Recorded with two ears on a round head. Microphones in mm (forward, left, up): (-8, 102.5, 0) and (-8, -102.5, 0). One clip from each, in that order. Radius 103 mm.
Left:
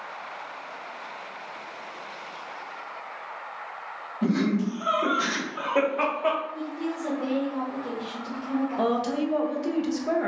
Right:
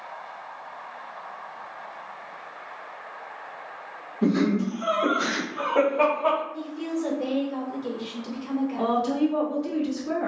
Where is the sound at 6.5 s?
25° right (ahead or behind), 0.8 m.